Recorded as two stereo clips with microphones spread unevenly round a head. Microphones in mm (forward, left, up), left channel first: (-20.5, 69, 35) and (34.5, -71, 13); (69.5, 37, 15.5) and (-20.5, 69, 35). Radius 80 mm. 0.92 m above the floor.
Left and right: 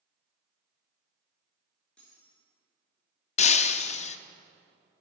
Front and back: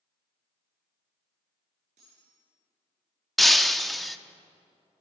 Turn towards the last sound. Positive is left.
turn(degrees=75)